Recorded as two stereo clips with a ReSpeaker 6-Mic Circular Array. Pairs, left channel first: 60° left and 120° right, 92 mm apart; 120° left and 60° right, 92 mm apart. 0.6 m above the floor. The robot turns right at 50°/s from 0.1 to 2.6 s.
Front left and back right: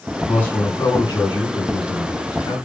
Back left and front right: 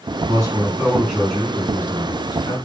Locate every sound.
0.3 s a man speaking: 15° right, 3.5 m; by 2.6 s 100° left, 3.5 m